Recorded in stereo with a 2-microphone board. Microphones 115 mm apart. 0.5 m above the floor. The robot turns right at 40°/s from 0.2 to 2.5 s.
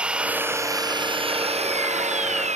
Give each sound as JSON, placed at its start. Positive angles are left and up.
{"t": 0.0, "sound": "an engine running", "azimuth_deg": -170}